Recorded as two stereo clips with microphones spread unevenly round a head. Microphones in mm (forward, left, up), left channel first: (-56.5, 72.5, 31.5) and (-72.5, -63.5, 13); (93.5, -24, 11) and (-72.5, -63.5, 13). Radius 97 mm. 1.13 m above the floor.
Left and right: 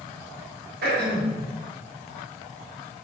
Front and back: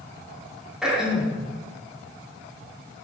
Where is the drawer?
No drawer in this recording.